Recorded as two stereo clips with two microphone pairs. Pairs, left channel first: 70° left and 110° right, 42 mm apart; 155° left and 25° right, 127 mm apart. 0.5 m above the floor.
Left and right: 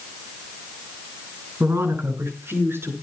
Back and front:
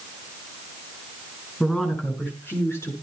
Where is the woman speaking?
120° right, 5.5 m; by 2.9 s 135° right, 6 m.